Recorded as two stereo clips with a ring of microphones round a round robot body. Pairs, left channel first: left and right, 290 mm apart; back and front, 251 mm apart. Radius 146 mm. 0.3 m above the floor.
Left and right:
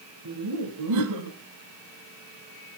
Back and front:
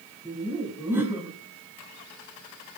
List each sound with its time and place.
0.2 s laughter: 80° right, 1.9 m